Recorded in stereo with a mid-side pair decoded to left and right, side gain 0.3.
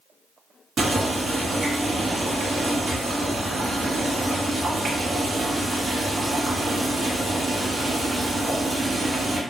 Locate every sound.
0.8 s boiling: 70° right, 1.3 m